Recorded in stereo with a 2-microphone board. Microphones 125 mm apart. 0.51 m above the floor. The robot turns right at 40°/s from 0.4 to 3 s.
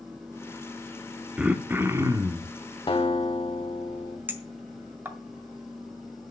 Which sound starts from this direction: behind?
Throat clearing, at 1.4 s.